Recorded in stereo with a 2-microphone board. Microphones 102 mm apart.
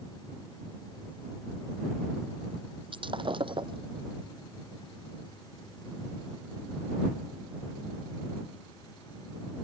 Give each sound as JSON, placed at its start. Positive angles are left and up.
{"t": 2.9, "sound": "breaking glass", "side_deg": -55}